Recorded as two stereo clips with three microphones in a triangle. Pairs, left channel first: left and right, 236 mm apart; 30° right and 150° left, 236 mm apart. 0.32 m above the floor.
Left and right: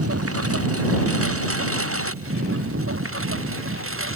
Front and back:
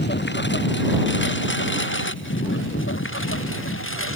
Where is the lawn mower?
75° right; by 4.2 s 60° right.